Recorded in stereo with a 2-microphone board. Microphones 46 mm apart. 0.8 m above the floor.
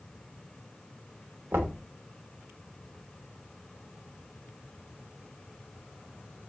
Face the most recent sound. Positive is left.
turn(degrees=-55)  # may be behind; listen again after turning